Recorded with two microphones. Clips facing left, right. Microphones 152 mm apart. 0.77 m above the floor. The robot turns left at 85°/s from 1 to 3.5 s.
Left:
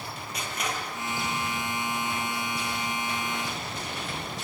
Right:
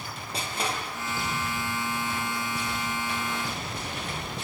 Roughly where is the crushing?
Right.